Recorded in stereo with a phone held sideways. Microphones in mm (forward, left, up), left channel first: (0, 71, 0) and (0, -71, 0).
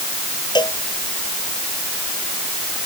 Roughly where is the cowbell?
Left.